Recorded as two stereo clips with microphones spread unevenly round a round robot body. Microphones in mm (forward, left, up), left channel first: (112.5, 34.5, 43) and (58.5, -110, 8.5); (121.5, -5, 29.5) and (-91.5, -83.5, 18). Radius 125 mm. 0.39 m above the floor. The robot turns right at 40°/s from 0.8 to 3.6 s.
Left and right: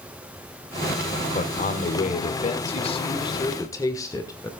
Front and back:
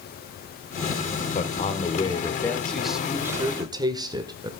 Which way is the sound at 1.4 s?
55° left.